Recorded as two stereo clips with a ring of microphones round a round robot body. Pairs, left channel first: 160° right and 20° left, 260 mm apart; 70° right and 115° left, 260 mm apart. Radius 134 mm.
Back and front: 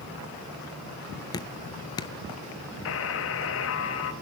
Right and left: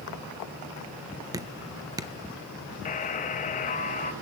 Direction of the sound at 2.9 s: 130° right.